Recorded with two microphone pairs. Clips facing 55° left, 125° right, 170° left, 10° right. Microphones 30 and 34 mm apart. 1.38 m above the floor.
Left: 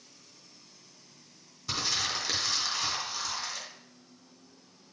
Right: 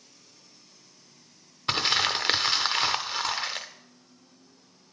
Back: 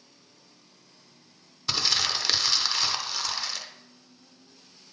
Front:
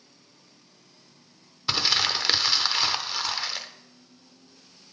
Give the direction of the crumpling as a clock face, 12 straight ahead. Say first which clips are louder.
Right 7 dB, front 2 dB; 3 o'clock.